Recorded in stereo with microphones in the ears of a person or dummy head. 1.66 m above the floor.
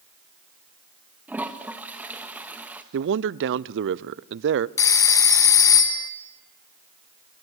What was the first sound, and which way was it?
A toilet flushing, 5° right (ahead or behind).